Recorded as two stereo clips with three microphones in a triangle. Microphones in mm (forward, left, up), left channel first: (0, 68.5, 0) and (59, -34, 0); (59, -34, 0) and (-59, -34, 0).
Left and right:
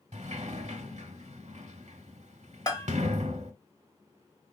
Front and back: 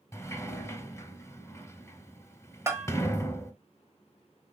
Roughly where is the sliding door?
Ahead right.